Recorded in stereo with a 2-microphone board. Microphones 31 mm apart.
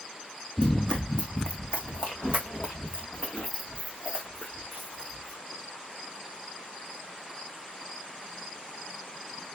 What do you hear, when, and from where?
0.6 s running footsteps: 30° left (ahead or behind), 0.5 m; by 5.4 s 40° left (ahead or behind), 3 m